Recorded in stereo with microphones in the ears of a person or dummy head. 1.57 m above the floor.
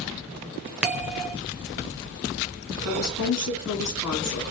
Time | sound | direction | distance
0.8 | a bell | 5° right (ahead or behind) | 0.6 m
2.9 | a woman speaking | 80° left | 2.5 m